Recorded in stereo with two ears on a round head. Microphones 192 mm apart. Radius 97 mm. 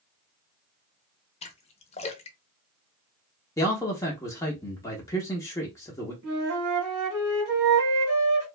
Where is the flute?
75° right (ahead or behind), 1.5 m.